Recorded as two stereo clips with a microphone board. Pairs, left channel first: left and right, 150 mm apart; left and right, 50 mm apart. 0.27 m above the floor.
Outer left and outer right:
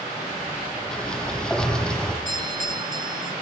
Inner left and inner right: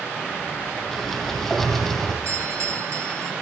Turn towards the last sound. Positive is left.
turn(degrees=-70)  # may be behind; listen again after turning